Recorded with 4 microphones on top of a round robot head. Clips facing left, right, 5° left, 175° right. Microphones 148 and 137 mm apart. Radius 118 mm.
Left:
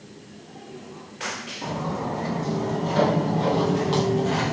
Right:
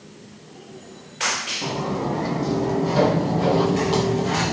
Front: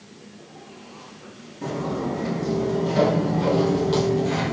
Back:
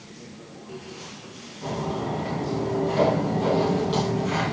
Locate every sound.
1.6 s footsteps: 15° right, 3 m; by 4.5 s 10° left, 1.3 m